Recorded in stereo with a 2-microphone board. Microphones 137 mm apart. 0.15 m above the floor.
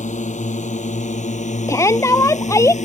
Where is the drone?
70° left (ahead or behind); by 2.8 s 65° left (ahead or behind).